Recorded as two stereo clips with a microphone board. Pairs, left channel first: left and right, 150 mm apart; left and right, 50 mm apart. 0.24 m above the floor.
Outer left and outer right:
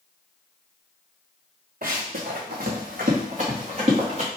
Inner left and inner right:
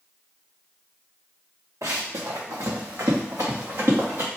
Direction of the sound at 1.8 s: 75° right (ahead or behind).